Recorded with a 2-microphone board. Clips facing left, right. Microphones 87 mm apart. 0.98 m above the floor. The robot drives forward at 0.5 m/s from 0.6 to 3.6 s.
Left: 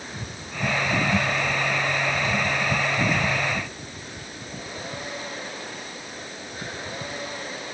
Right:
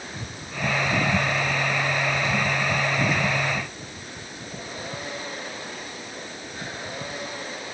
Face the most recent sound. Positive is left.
No sound to turn to.